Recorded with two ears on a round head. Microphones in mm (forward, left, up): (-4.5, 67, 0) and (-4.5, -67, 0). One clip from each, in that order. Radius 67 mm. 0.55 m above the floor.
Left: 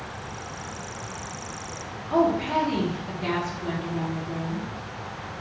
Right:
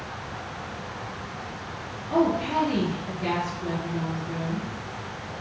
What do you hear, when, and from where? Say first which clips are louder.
2.1 s a woman speaking: left 1 dB; 10° left (ahead or behind), 0.9 m